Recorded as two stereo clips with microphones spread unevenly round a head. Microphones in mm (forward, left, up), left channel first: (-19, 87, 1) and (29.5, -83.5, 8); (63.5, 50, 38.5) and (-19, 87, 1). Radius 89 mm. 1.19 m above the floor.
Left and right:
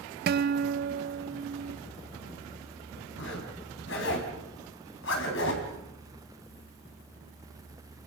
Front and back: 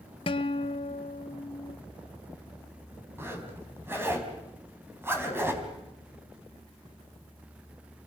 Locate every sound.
0.3 s a guitar: 70° right, 0.6 m
3.2 s a zipper: 85° left, 4 m